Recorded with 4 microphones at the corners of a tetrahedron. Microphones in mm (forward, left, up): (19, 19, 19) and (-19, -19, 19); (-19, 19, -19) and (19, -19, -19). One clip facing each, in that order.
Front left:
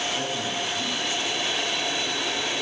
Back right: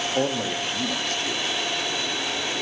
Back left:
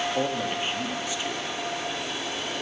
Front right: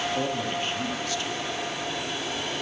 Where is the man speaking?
155° right, 0.6 m.